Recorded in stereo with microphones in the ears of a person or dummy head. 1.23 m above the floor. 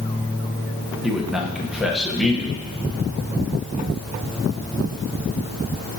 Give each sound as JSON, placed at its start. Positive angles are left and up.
{"t": 1.0, "sound": "a man speaking", "side_deg": 0, "distance_m": 1.0}